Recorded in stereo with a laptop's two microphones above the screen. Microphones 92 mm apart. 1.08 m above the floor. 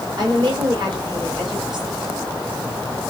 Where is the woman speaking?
50° right (ahead or behind), 4.5 m.